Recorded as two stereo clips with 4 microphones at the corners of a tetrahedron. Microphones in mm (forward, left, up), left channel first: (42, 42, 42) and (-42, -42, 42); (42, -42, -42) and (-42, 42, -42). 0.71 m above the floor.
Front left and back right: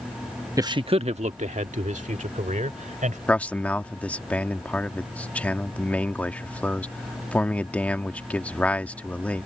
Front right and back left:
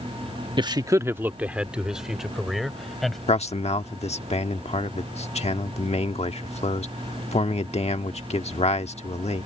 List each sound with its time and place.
0.6 s a man speaking: 170° left; by 3.2 s 135° right
3.3 s a man speaking: 35° right